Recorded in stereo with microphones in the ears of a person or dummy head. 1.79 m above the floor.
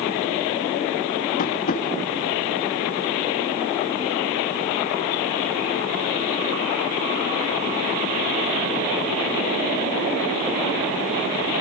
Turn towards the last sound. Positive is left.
turn(degrees=40)  # may be behind; listen again after turning